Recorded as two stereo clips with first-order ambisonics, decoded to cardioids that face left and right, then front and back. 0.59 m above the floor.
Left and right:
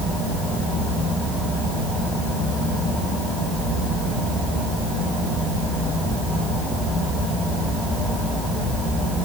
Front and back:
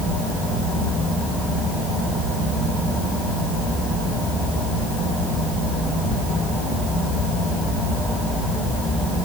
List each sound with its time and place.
Only background noise.